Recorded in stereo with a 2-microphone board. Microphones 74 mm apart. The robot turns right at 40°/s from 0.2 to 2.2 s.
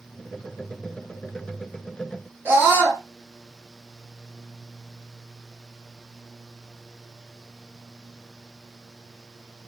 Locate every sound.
2.5 s a scream: 30° right (ahead or behind), 1.8 m